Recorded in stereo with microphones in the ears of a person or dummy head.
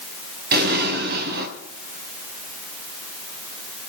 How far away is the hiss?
I don't hear a hiss.